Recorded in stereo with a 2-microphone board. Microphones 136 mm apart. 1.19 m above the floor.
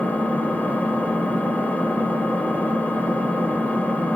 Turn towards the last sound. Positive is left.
turn(degrees=10)  # may be behind; listen again after turning